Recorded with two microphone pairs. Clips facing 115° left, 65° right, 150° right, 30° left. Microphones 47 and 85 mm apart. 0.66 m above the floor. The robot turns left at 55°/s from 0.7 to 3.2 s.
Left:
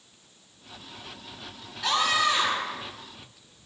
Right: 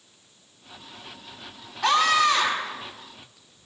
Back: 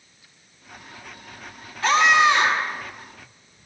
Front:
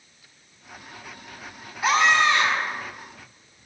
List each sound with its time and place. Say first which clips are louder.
1.8 s a scream: right 5 dB, back 2 dB; 50° right, 7 m; by 2.8 s 100° right, 7 m